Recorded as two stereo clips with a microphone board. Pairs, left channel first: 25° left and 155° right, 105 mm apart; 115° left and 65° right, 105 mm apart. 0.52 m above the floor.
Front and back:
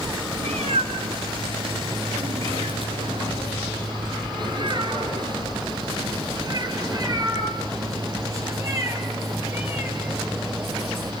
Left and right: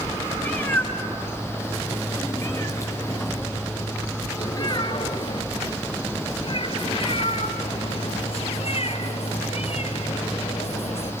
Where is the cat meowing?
170° right, 5 m; by 11.1 s 135° left, 7 m.